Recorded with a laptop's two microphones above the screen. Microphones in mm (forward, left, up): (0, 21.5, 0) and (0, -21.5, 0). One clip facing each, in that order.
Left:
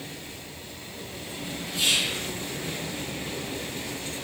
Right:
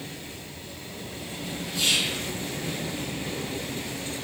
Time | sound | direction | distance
1.7 | whispering | 35° left (ahead or behind) | 1.7 m